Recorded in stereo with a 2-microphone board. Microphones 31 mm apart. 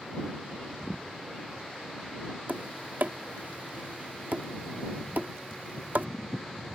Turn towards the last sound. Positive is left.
turn(degrees=-65)  # may be behind; listen again after turning